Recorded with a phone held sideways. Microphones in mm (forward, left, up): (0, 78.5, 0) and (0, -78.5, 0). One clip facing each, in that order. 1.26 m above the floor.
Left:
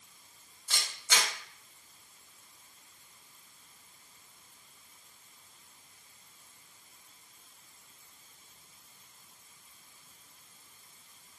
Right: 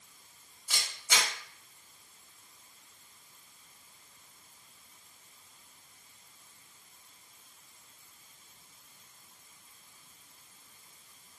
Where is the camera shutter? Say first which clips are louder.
Even; 15° right (ahead or behind), 1.1 m.